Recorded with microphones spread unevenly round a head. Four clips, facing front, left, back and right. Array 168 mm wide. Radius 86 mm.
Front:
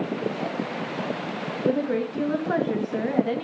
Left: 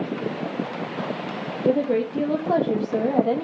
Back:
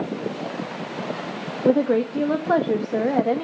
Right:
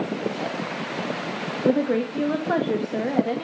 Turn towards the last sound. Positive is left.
turn(degrees=155)